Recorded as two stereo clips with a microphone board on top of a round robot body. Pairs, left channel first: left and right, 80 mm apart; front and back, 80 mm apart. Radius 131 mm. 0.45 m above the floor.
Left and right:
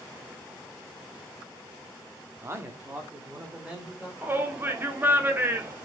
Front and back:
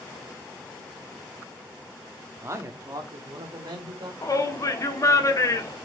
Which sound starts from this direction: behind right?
A man speaking, at 2.4 s.